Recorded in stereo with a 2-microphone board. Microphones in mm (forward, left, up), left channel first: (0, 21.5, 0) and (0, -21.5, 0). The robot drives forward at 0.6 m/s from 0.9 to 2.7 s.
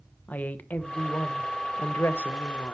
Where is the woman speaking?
45° left (ahead or behind), 0.9 m; by 2.8 s 50° left (ahead or behind), 0.8 m.